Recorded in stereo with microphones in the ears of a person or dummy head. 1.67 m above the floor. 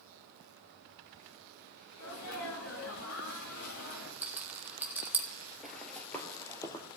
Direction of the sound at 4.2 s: 15° right (ahead or behind).